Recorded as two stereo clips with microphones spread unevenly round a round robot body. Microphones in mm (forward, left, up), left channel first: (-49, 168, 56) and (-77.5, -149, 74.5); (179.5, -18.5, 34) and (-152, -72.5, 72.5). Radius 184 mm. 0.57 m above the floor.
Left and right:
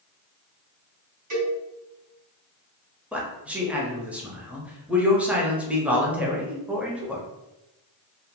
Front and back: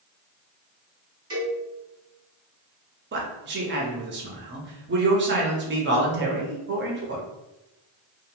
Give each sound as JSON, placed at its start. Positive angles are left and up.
{"t": 1.3, "sound": "a cowbell", "azimuth_deg": -90, "distance_m": 1.9}
{"t": 3.1, "sound": "a man speaking", "azimuth_deg": 175, "distance_m": 0.7}